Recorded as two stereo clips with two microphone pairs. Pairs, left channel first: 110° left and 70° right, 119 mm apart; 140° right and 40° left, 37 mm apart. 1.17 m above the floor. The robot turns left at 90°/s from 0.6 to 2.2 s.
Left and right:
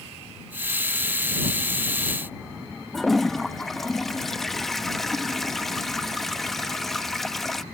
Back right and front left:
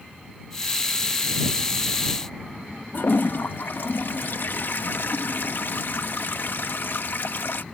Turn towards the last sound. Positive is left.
turn(degrees=-165)